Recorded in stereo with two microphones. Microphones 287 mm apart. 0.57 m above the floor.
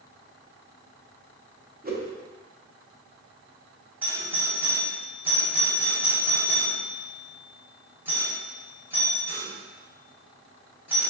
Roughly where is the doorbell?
Centre.